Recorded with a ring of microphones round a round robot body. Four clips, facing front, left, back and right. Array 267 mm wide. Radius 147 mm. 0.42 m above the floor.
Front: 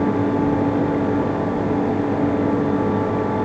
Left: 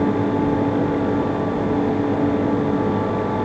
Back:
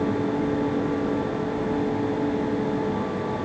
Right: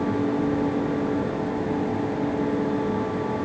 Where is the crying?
No crying in this recording.